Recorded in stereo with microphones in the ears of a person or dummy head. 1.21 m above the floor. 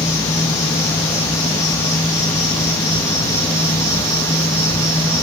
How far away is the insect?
About 1.9 m.